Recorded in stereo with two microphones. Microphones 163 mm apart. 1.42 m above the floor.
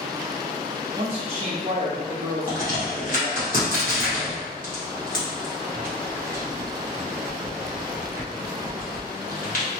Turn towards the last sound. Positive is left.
turn(degrees=55)  # may be behind; listen again after turning